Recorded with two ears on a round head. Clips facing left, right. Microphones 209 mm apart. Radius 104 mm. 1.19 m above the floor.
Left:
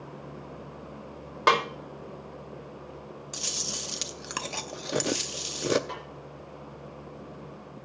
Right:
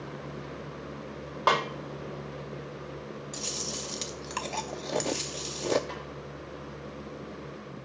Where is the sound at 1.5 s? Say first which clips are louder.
Left 2 dB; 35° left (ahead or behind), 2.5 m.